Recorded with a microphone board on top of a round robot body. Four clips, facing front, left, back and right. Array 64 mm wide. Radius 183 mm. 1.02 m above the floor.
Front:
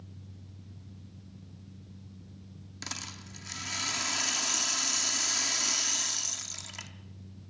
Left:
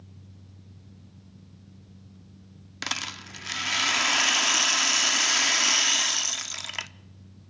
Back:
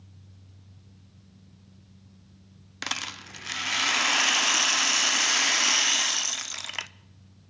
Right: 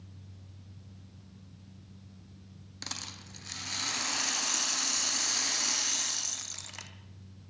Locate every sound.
2.8 s a rattle: 140° left, 0.7 m